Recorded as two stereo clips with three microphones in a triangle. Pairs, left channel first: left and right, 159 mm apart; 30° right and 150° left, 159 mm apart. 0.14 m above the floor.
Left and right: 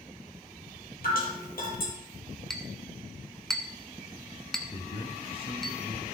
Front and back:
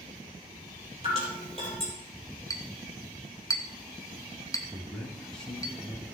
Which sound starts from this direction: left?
Dripping, at 1.0 s.